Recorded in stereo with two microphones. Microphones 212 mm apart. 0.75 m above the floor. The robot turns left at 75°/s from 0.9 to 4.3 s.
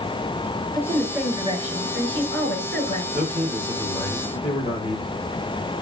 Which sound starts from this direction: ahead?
A woman speaking, at 0.7 s.